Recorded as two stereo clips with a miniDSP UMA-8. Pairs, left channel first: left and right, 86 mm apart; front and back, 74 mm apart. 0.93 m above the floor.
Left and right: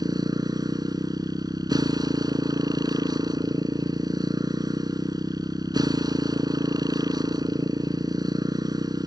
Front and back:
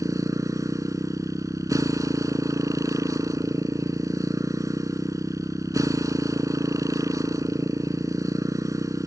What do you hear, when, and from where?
0.0 s a motorcycle: 135° right